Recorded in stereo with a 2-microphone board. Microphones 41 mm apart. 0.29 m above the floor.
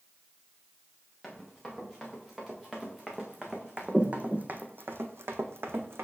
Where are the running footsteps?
5° left (ahead or behind), 3 m; by 6.0 s 65° right (ahead or behind), 1.3 m.